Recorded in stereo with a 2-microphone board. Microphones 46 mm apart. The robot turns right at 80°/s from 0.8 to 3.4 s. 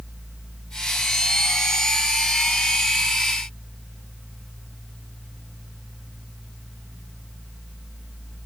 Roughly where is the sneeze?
No sneeze in this recording.